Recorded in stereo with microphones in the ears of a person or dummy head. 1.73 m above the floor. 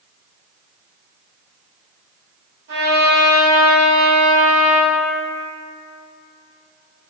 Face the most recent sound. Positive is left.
turn(degrees=-40)  # may be behind; listen again after turning